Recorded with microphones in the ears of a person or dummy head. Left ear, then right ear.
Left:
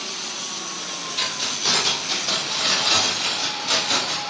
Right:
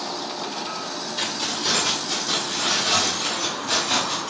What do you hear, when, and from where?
1.2 s keys jangling: 25° left (ahead or behind), 3 m; by 4.2 s 45° left (ahead or behind), 5 m